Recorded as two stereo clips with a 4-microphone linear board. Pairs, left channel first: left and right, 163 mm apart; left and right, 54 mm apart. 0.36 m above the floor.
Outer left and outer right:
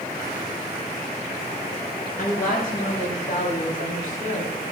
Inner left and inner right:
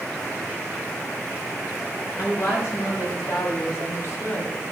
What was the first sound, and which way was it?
A woman speaking, 55° left (ahead or behind).